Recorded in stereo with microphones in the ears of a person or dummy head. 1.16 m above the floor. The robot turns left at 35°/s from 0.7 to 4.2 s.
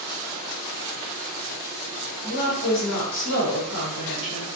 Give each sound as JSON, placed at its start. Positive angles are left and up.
{"t": 2.2, "sound": "a woman speaking", "azimuth_deg": 125, "distance_m": 1.2}